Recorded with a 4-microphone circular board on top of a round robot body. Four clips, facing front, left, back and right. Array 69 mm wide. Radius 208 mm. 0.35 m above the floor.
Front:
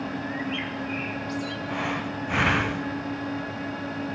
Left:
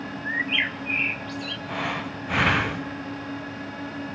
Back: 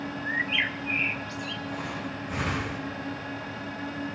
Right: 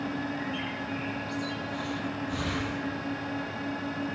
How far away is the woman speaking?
No woman speaking in this recording.